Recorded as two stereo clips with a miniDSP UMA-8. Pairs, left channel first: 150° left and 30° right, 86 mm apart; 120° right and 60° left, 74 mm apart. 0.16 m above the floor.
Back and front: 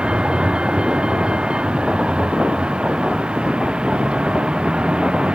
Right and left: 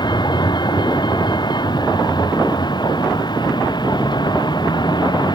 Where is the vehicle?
110° right.